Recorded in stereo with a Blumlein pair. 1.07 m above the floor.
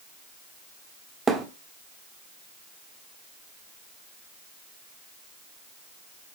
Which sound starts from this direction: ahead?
A thud, at 1.3 s.